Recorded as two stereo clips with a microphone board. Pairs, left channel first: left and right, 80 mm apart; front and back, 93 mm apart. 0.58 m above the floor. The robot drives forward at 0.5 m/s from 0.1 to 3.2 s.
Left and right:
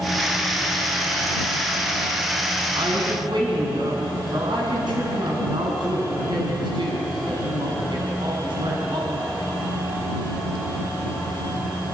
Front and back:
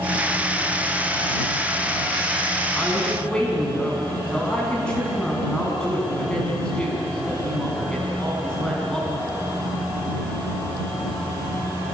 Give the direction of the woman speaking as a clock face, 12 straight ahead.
3 o'clock.